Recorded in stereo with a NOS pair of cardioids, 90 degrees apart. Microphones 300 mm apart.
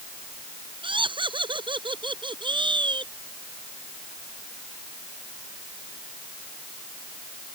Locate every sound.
0.8 s laughter: 15° right